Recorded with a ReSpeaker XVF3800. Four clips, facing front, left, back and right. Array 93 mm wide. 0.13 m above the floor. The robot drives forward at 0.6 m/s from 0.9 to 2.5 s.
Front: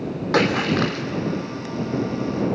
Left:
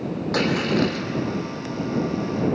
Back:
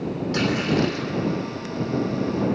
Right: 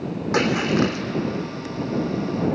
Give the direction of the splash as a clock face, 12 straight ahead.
1 o'clock.